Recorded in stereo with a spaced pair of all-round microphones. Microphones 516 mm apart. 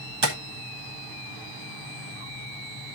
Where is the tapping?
50° right (ahead or behind), 1.5 m.